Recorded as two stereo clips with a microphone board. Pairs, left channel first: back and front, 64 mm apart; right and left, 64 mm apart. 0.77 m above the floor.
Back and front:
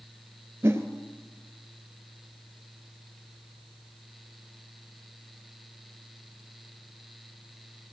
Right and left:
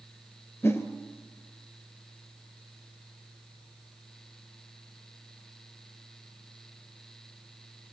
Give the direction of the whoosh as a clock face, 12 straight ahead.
2 o'clock.